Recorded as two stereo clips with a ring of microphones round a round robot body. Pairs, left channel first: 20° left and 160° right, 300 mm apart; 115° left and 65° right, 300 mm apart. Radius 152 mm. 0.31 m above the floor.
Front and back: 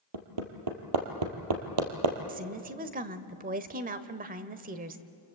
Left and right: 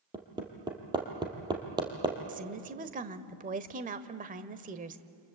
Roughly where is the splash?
No splash in this recording.